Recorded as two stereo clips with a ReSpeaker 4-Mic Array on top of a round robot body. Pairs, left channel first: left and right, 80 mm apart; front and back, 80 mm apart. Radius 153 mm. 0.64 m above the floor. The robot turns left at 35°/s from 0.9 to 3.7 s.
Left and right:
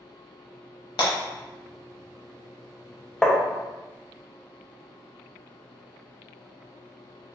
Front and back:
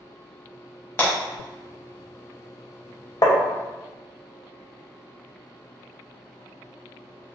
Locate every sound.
1.0 s breaking glass: 65° left, 0.9 m; by 1.1 s 60° left, 0.9 m
3.2 s tapping: 10° left, 0.8 m; by 3.4 s 5° left, 0.8 m